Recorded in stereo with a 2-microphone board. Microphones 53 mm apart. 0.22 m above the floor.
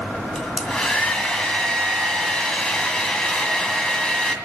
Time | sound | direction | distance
0.3 | a hair dryer | 15° left (ahead or behind) | 1.9 m